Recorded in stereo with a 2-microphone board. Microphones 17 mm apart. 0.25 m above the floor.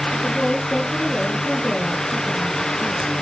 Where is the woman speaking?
30° right (ahead or behind), 5 m.